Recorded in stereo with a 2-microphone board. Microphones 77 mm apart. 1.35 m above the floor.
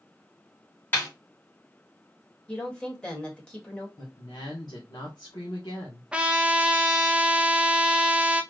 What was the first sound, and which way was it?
A snare drum, 25° left (ahead or behind).